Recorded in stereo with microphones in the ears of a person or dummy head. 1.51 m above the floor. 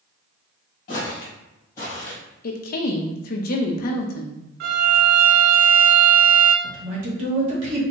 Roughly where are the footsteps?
Left.